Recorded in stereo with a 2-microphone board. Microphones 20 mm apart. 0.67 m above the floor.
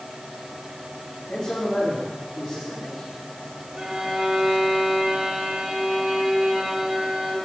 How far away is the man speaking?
About 3.5 m.